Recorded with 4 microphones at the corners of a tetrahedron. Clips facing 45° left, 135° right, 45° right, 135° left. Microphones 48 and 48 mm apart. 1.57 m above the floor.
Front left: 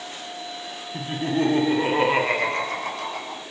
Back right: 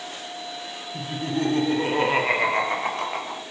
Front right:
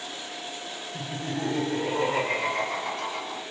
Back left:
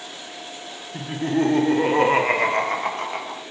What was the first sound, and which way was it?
Laughter, 95° left.